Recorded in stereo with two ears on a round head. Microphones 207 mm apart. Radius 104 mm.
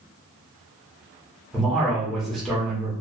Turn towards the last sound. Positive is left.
turn(degrees=0)  # may be behind; listen again after turning